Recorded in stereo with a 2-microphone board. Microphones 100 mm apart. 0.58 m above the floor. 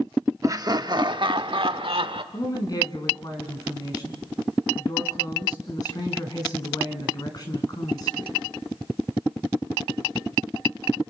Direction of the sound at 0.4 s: 35° right (ahead or behind).